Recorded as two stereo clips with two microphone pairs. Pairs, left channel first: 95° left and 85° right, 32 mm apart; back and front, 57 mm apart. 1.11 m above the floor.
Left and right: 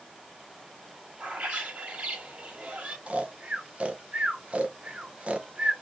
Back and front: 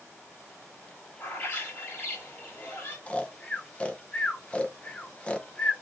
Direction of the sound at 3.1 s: 115° right.